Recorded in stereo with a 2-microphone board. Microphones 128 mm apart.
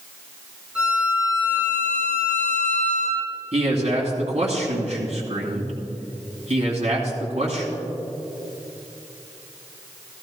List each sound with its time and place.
0.8 s a violin: 5° right (ahead or behind), 3.5 m
3.5 s a man speaking: 60° right (ahead or behind), 2.5 m